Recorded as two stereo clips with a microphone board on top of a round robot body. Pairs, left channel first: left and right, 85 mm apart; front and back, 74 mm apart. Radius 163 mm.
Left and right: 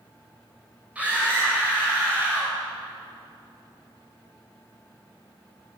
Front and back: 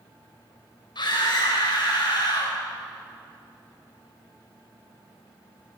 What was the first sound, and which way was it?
A scream, 15° right.